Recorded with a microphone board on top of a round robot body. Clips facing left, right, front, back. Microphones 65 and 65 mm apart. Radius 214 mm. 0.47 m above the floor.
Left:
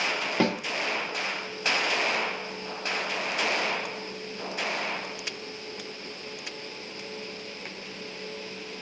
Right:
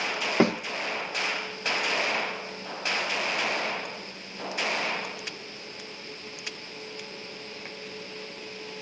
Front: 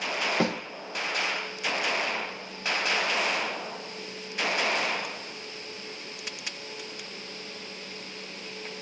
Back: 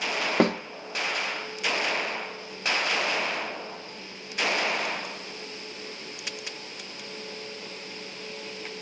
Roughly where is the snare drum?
Behind right.